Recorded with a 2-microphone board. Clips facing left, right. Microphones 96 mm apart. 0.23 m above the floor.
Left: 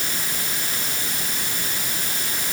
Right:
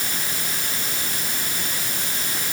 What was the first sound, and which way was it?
Only background noise.